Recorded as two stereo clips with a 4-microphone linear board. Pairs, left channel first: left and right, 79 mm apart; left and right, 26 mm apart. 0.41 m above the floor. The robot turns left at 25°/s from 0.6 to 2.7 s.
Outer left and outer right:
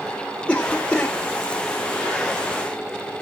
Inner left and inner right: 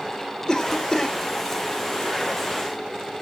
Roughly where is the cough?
Centre.